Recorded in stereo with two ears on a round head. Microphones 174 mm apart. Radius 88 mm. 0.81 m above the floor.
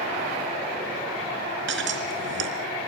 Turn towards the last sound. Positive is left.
turn(degrees=-65)  # may be behind; listen again after turning